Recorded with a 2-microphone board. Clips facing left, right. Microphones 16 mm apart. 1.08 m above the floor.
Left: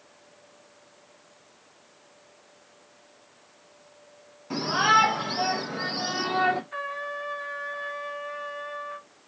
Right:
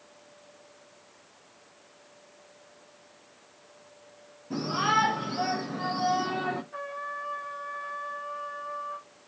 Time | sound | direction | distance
4.5 | a shout | 80° left | 2 m
6.7 | a trumpet | 80° left | 2.5 m